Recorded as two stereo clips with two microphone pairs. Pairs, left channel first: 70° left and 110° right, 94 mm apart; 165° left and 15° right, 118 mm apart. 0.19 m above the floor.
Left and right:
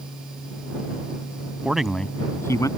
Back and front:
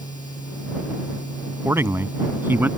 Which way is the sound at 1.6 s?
50° right.